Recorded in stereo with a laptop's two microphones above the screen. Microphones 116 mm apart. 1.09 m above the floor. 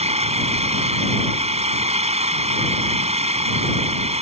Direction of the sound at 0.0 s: 70° right (ahead or behind).